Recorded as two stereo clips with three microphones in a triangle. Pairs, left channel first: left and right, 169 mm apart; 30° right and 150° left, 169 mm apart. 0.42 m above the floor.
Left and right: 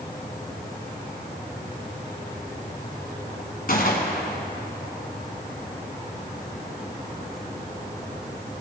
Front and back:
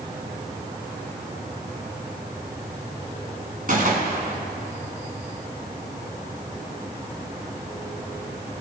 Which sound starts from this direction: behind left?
A gunshot, at 3.7 s.